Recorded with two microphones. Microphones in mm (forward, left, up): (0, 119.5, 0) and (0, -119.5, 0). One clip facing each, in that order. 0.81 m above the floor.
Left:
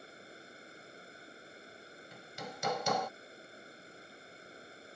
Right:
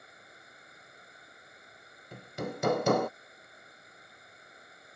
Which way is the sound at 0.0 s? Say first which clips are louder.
Left 6 dB; 30° left (ahead or behind).